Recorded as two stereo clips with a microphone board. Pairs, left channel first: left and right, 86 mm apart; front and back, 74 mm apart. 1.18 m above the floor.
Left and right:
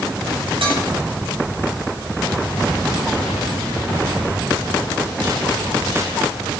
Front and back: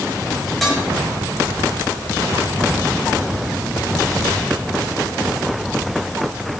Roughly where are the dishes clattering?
Right.